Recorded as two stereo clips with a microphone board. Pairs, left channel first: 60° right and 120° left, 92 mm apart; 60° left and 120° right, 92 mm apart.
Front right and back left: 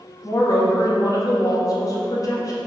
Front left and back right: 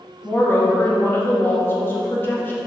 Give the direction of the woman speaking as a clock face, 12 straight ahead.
12 o'clock.